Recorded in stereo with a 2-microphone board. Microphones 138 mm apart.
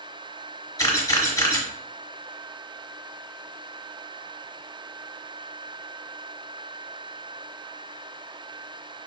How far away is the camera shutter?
About 1.3 m.